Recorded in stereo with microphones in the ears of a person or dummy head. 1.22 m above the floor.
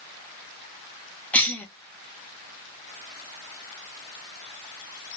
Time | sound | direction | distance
1.3 | a cough | centre (ahead or behind) | 0.6 m